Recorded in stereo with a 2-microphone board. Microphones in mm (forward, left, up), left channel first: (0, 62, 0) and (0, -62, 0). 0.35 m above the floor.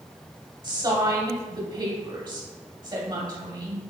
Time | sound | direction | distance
0.6 | a woman speaking | 35° right (ahead or behind) | 2 m